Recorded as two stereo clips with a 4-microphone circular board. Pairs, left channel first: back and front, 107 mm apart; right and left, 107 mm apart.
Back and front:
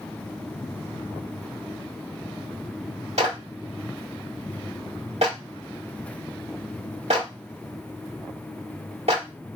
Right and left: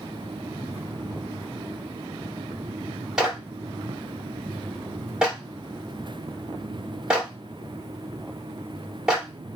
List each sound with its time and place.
3.2 s a clap: 5° left, 1.4 m